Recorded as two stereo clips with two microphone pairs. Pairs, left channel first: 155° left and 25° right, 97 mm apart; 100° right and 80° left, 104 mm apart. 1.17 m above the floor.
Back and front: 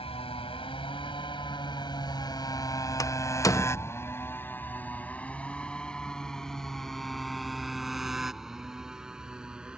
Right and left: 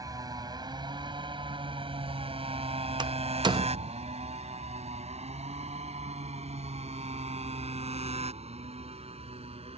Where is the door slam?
115° left.